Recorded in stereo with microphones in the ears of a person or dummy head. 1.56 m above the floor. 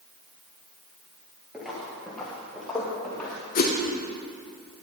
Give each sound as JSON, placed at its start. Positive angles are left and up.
{"t": 1.5, "sound": "footsteps", "side_deg": -5, "distance_m": 1.9}
{"t": 3.5, "sound": "a whoosh", "side_deg": 50, "distance_m": 1.1}